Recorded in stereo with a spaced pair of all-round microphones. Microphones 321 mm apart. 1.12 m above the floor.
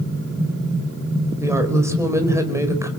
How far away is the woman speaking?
About 4.5 m.